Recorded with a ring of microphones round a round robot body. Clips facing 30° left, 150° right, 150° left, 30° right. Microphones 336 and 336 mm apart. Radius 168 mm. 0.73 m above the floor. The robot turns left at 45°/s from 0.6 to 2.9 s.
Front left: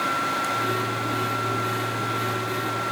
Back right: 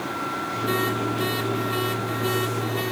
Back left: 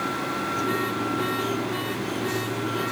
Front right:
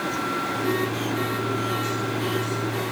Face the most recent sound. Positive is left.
No sound to turn to.